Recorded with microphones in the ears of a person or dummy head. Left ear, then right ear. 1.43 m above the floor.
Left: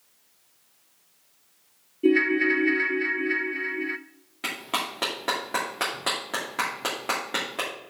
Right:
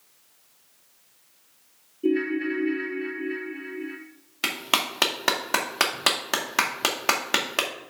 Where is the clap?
55° right (ahead or behind), 2.0 m.